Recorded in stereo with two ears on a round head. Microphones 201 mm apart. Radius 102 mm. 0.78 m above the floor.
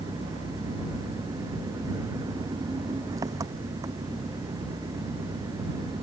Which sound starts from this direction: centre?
An engine running, at 0.0 s.